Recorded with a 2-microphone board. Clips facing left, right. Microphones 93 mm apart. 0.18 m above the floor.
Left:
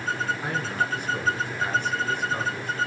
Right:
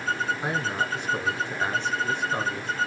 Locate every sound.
0.4 s a man speaking: 20° right (ahead or behind), 2 m